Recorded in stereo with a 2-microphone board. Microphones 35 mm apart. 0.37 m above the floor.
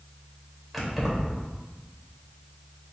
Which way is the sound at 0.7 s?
Centre (ahead or behind).